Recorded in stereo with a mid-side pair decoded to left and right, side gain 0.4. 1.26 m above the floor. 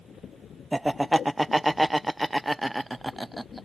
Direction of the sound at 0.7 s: 10° right.